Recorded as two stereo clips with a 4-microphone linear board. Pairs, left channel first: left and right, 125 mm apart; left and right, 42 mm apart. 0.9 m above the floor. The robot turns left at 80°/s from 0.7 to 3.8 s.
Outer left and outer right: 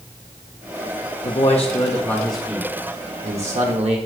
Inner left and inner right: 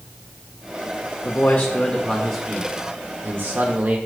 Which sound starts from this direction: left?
A man speaking, at 1.2 s.